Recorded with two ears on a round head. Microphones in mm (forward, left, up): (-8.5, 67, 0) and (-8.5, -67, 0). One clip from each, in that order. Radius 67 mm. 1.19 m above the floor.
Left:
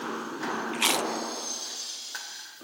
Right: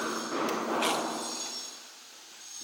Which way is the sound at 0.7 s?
35° left (ahead or behind).